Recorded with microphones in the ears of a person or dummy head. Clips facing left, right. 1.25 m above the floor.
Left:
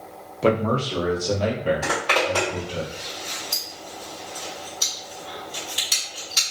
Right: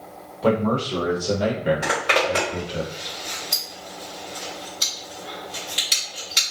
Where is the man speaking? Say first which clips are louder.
Even; 35° left (ahead or behind), 0.6 m; by 2.8 s 25° right (ahead or behind), 1.5 m.